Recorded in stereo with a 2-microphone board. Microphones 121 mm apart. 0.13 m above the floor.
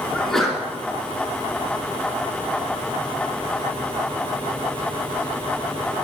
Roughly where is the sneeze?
Centre.